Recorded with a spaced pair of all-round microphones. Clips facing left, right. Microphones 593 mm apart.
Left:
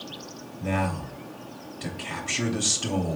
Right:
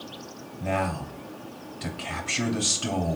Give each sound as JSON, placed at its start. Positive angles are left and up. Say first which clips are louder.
{"t": 0.6, "sound": "a man speaking", "louder": "left 1 dB", "side_deg": -10, "distance_m": 3.0}